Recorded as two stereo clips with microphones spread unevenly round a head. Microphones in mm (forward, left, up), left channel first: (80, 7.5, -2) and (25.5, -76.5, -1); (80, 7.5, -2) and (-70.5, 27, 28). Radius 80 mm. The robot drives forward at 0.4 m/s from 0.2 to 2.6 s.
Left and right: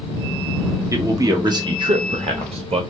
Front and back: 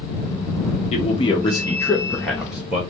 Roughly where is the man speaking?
Ahead right.